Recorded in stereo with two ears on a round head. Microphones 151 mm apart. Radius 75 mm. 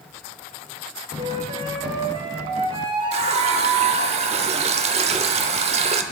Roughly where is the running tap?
Right.